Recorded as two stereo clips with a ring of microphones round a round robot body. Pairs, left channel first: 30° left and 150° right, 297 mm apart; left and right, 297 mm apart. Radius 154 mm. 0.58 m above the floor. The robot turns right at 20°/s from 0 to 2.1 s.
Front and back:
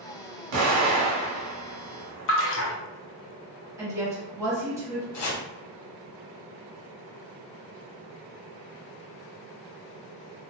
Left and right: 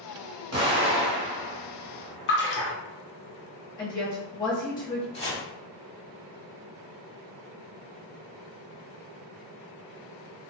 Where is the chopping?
25° left, 0.9 m.